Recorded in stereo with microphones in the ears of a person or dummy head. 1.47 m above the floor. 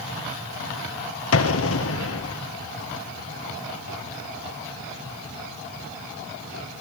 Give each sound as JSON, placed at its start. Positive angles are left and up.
{"t": 1.3, "sound": "an explosion", "side_deg": 65, "distance_m": 1.5}